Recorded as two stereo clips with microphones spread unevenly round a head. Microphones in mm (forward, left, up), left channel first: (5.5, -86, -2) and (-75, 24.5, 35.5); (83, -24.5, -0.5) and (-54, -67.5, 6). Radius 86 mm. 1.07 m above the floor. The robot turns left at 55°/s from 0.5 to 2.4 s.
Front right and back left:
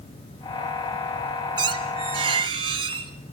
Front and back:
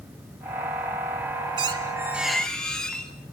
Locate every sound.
1.6 s a squeak: 150° left, 1.5 m; by 3.1 s 105° left, 1.5 m